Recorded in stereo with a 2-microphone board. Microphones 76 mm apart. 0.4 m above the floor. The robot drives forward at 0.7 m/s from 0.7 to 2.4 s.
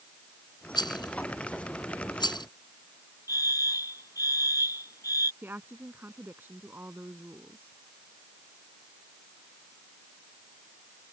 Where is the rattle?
70° left (ahead or behind); by 2.5 s 75° left (ahead or behind).